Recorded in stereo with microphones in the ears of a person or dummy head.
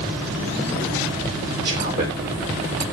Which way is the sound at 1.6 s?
50° right (ahead or behind).